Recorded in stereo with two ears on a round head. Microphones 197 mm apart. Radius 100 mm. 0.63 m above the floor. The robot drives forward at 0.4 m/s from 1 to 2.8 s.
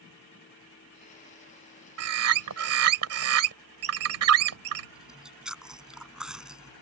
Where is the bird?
80° right.